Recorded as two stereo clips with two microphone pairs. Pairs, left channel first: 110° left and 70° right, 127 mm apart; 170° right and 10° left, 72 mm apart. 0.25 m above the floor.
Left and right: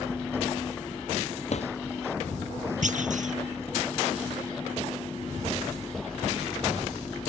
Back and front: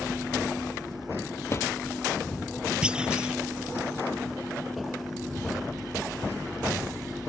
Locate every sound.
1.5 s a drawer: 135° left
2.8 s a clunk: 70° right